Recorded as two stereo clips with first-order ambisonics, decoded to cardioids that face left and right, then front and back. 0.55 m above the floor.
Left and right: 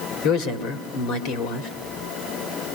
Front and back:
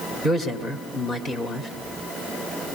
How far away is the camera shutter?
No camera shutter in this recording.